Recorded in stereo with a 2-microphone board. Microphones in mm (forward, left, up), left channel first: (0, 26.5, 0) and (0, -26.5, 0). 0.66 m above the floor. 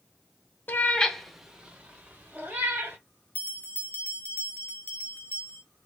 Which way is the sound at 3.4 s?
30° left (ahead or behind).